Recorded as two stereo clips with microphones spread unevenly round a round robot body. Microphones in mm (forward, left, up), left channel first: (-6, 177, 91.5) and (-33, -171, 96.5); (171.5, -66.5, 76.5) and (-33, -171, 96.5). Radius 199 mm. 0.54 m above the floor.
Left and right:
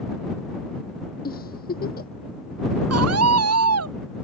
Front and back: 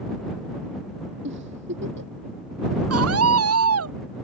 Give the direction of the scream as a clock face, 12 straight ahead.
5 o'clock.